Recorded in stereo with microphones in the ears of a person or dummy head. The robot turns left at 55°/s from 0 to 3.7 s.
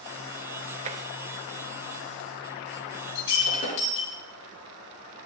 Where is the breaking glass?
70° left, 3 m; by 4.1 s 40° left, 3 m.